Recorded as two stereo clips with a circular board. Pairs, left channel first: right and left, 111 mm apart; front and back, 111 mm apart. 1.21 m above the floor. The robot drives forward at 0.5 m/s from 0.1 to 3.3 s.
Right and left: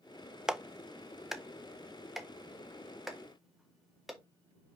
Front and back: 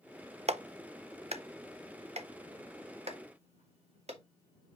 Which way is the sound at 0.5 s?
175° left.